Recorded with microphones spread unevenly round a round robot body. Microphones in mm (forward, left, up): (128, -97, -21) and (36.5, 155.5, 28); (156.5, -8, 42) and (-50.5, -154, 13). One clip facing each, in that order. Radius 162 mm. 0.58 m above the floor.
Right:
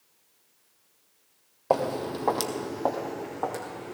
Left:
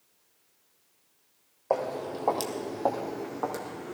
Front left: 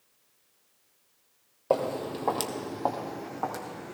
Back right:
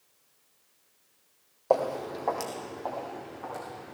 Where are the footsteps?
30° right, 1.3 m; by 3.9 s 45° left, 2 m.